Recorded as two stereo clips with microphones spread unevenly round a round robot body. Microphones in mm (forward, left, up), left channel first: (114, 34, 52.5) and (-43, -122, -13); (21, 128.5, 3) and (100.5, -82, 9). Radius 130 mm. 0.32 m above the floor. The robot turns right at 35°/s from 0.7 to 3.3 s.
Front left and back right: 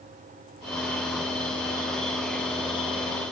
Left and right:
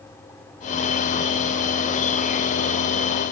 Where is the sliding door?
I don't hear a sliding door.